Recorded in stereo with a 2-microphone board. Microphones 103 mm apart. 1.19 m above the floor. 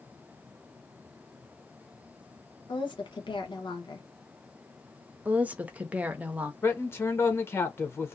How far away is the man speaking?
About 0.7 m.